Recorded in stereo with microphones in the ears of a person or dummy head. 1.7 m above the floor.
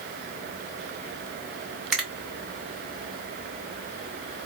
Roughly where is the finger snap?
Centre.